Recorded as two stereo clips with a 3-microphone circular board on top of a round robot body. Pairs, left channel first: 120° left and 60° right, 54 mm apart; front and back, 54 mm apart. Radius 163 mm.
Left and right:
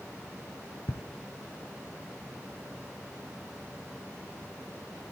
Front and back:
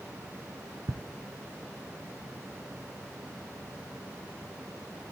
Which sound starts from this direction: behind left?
Ticking, at 0.9 s.